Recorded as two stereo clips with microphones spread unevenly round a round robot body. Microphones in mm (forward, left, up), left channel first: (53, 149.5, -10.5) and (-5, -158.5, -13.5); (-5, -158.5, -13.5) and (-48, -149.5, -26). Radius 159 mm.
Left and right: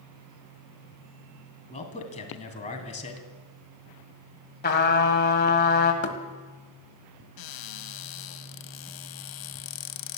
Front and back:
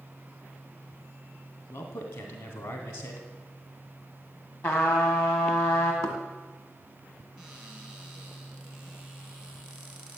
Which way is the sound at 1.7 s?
10° left.